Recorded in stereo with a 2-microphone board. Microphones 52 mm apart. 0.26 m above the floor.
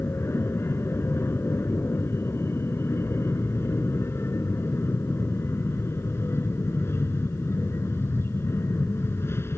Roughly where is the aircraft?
Left.